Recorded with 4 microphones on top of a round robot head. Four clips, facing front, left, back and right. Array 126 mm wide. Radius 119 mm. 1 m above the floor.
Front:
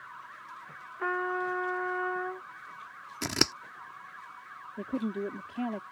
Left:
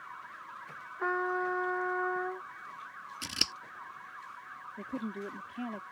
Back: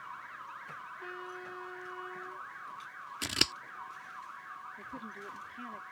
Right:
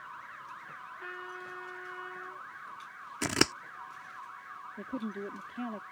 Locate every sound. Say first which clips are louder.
1.0 s a trumpet: left 15 dB, front 17 dB; 45° left
3.2 s scissors: right 15 dB, front 7 dB; 60° right
4.8 s a woman speaking: even, front 12 dB; 5° right